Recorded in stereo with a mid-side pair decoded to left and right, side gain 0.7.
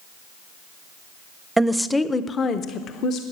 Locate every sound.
1.6 s a woman speaking: 15° right, 0.7 m; by 3.2 s 55° left, 1.2 m